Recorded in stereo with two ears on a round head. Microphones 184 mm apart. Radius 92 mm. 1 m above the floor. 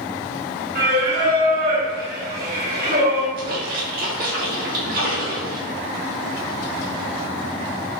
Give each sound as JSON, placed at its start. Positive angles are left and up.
{"t": 0.8, "sound": "singing", "side_deg": -45, "distance_m": 1.5}
{"t": 3.4, "sound": "a splash", "side_deg": -45, "distance_m": 1.2}